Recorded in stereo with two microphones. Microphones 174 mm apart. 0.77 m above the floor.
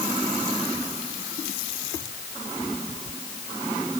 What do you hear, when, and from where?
Only background noise.